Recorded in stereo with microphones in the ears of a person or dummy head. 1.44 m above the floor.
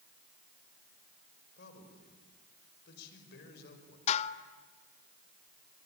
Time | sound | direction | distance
1.6 | a man speaking | 65° left (ahead or behind) | 5 m
4.1 | dishes clattering | 40° left (ahead or behind) | 0.9 m